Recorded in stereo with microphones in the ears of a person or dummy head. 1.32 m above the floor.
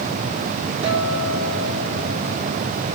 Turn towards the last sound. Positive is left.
turn(degrees=-75)  # may be behind; listen again after turning